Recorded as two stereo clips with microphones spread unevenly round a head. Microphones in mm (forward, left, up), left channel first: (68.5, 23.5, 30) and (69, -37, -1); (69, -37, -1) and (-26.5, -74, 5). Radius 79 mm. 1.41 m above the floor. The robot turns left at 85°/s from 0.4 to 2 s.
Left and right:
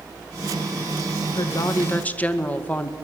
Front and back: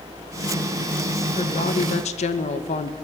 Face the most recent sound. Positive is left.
turn(degrees=20)